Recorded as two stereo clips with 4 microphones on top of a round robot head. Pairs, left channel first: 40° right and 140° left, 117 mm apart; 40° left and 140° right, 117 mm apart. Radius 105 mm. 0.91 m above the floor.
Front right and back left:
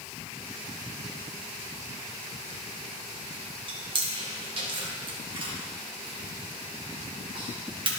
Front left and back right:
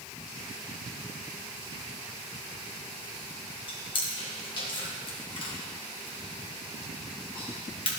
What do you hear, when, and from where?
3.7 s chewing: 90° left, 1.7 m